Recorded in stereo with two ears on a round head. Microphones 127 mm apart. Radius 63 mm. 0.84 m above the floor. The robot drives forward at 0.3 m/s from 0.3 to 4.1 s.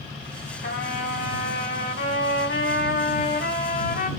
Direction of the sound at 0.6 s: 70° left (ahead or behind).